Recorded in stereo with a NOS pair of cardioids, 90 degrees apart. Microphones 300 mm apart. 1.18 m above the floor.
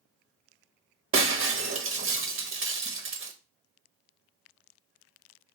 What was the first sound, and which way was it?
Breaking glass, 45° right.